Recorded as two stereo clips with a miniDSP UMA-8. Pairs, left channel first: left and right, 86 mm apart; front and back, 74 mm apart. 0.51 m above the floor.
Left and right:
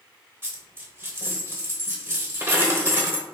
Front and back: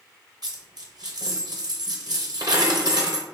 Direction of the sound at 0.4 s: 150° right.